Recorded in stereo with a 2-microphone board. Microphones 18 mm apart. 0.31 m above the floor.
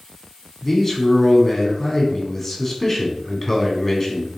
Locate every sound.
0.6 s a man speaking: 25° left (ahead or behind), 2.5 m